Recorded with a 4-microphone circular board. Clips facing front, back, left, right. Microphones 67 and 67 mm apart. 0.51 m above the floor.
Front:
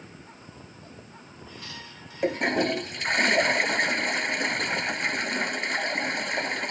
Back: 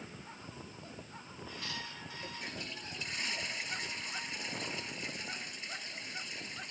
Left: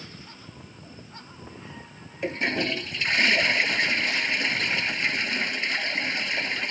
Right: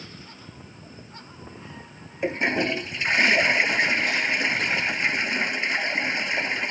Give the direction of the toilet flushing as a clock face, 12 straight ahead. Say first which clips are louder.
Front 22 dB, right 3 dB; 1 o'clock.